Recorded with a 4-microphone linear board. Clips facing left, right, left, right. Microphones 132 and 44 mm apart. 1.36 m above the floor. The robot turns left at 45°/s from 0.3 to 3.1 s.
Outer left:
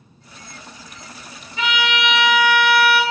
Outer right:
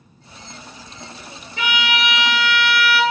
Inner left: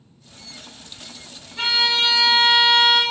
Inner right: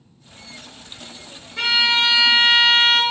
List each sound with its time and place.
1.6 s a violin: 75° right, 1.6 m; by 3.0 s 140° right, 1.6 m